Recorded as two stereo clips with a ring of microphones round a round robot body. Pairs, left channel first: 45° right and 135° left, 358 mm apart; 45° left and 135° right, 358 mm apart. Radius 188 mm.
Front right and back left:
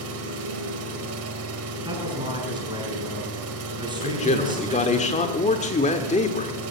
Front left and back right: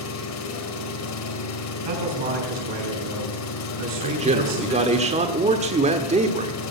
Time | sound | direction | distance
0.0 | an engine running | 90° left | 1.9 m
1.9 | a man speaking | 145° right | 5.5 m
4.0 | a man speaking | 90° right | 1.2 m